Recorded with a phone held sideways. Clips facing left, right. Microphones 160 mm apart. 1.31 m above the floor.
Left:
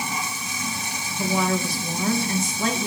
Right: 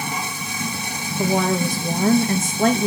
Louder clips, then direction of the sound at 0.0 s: Right 2 dB; 60° right (ahead or behind).